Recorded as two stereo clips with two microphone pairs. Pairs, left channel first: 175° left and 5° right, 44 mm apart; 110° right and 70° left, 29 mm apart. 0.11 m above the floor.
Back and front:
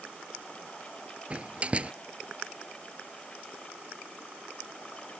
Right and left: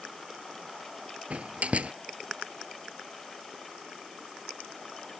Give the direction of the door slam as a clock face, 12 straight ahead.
10 o'clock.